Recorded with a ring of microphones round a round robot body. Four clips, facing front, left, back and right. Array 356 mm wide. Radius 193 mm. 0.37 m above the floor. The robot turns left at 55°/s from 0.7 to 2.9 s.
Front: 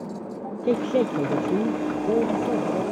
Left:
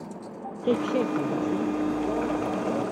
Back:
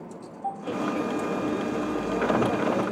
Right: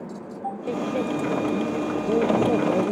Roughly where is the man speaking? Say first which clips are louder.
Left 3 dB, front 7 dB; ahead left.